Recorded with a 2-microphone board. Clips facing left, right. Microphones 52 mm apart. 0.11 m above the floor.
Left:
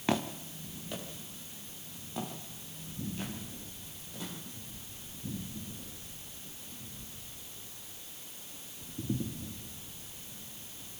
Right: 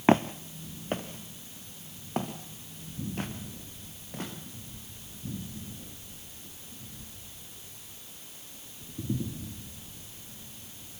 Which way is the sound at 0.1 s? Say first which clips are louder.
Right 9 dB; 40° right (ahead or behind).